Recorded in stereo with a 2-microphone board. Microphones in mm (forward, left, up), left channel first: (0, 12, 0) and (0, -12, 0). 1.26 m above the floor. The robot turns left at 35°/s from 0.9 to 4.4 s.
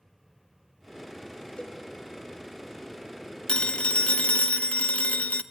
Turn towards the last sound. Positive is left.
turn(degrees=110)